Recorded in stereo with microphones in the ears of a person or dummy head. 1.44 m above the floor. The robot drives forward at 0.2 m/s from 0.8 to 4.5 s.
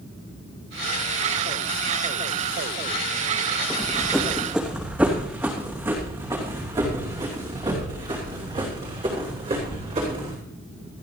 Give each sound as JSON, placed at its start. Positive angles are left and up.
{"t": 3.7, "sound": "running footsteps", "side_deg": 5, "distance_m": 3.0}